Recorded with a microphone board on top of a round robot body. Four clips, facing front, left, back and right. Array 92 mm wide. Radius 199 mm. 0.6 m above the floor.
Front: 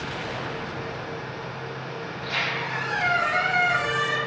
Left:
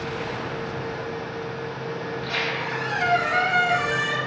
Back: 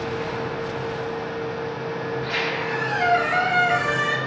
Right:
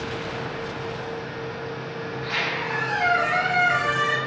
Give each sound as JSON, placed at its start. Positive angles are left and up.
{"t": 2.1, "sound": "a squeak", "azimuth_deg": -145, "distance_m": 1.2}